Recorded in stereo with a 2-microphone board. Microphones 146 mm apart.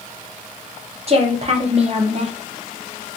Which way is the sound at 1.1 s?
45° right (ahead or behind).